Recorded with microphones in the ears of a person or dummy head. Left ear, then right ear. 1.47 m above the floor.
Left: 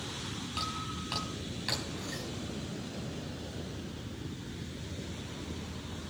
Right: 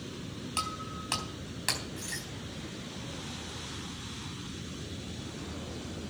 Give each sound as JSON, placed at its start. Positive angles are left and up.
{"t": 0.6, "sound": "breaking glass", "side_deg": -30, "distance_m": 3.5}